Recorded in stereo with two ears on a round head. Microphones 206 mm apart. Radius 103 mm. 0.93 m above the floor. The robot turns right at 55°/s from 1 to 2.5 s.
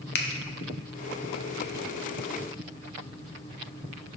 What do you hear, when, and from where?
0.1 s a finger snap: 45° left (ahead or behind), 0.7 m